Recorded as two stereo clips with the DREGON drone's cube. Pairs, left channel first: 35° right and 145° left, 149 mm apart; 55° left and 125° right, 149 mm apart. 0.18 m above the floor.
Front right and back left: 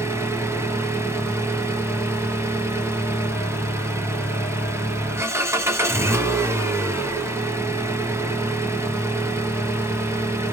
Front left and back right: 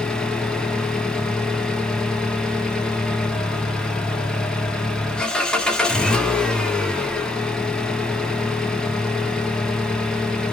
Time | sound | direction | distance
0.0 | an engine running | 130° left | 0.9 m